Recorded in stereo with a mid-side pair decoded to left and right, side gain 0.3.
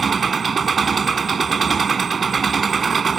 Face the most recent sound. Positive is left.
turn(degrees=-50)